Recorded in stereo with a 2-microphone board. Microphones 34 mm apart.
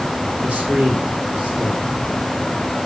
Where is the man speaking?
25° right (ahead or behind), 4 m.